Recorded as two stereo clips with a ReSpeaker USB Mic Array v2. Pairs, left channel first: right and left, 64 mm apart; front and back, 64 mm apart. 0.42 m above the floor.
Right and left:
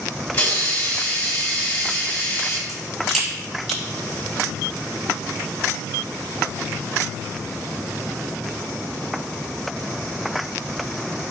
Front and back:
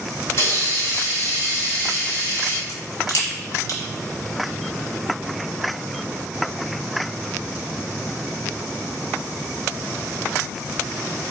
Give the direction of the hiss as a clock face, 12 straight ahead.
1 o'clock.